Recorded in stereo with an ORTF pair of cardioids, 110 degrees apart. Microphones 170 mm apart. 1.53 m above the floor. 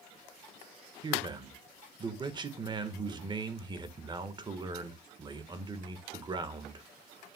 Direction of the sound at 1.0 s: 25° right.